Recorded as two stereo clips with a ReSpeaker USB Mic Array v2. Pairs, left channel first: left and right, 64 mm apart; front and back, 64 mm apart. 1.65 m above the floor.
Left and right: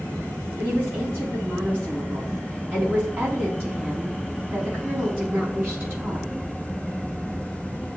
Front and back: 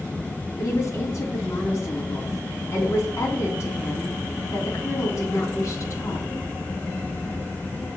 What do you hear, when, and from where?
0.6 s a woman speaking: 30° right, 3.5 m